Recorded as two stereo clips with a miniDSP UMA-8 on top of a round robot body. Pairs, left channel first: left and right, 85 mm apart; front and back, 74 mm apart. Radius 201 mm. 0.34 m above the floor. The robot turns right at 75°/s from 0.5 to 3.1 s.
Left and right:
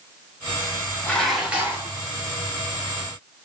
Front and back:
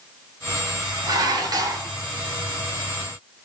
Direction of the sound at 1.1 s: 155° left.